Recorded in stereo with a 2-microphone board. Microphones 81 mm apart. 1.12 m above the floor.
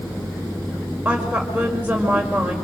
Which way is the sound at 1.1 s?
15° right (ahead or behind).